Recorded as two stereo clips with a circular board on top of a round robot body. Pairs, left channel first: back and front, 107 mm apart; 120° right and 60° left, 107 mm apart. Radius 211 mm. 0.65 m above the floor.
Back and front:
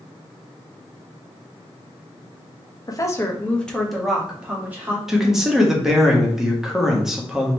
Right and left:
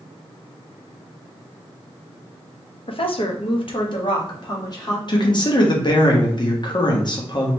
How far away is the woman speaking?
About 1.2 m.